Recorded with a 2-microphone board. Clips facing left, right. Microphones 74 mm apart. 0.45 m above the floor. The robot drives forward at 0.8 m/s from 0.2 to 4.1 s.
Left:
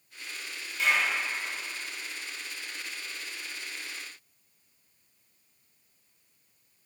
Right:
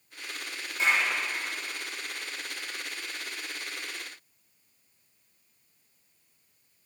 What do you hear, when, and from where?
0.8 s a clap: 30° right (ahead or behind), 2.5 m; by 1.1 s 35° right (ahead or behind), 2.5 m